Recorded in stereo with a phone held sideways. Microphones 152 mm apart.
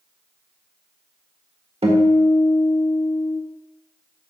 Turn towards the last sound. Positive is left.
turn(degrees=-40)  # may be behind; listen again after turning